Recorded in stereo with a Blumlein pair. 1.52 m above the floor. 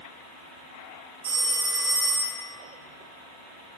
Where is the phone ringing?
60° right, 3 m.